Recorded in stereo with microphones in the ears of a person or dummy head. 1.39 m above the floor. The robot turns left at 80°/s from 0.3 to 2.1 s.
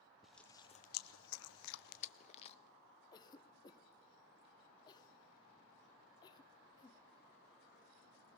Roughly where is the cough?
Left.